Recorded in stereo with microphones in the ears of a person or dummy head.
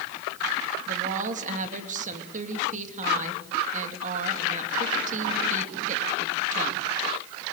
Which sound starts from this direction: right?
A woman speaking, at 0.9 s.